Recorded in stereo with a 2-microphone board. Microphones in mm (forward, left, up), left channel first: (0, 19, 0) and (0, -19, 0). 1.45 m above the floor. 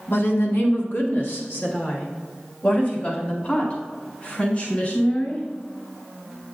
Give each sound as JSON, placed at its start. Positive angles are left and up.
{"t": 0.1, "sound": "a woman speaking", "side_deg": 70, "distance_m": 1.1}